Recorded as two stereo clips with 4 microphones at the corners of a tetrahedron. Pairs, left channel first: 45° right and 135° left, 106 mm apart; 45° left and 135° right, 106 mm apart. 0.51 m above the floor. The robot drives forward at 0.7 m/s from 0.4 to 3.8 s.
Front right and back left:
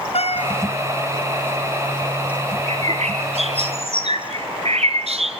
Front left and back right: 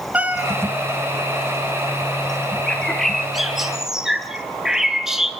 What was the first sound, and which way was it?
A cat meowing, 60° right.